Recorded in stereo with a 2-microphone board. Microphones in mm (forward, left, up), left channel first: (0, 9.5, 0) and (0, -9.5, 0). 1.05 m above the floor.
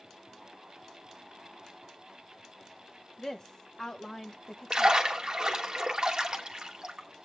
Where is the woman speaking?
35° left (ahead or behind), 0.9 m.